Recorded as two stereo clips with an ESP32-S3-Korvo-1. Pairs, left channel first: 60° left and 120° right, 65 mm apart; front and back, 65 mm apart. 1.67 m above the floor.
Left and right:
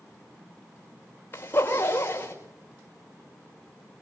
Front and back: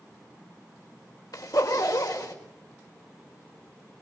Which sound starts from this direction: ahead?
A zipper, at 1.3 s.